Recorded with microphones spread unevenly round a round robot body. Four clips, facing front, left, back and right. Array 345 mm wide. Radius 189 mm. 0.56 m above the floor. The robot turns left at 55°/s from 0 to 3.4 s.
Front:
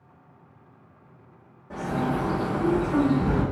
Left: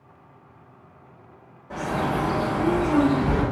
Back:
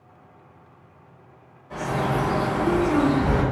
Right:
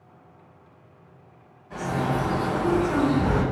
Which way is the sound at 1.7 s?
35° left.